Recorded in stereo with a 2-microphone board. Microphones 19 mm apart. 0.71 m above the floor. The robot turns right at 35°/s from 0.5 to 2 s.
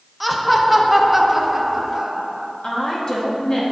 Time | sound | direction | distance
0.2 | laughter | 175° right | 0.5 m
2.6 | a woman speaking | 35° left (ahead or behind) | 1.2 m